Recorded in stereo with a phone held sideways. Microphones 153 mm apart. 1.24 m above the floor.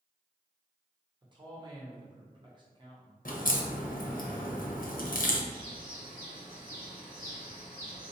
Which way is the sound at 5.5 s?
70° right (ahead or behind).